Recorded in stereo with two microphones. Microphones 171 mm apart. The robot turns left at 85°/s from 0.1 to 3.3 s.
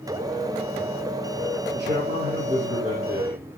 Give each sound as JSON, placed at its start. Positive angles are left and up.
{"t": 1.7, "sound": "a man speaking", "azimuth_deg": -85, "distance_m": 9.5}